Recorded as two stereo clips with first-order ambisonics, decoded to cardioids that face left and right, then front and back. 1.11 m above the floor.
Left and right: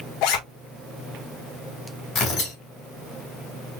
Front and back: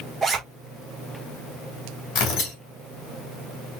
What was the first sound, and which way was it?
A zipper, 105° left.